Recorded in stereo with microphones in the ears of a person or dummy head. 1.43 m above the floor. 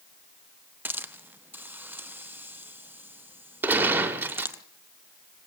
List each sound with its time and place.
0.8 s a hiss: 5° right (ahead or behind), 0.7 m
3.6 s a gunshot: 15° right (ahead or behind), 2 m